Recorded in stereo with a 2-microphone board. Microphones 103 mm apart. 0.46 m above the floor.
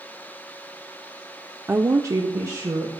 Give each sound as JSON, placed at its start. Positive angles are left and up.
{"t": 1.7, "sound": "a woman speaking", "side_deg": -20, "distance_m": 0.7}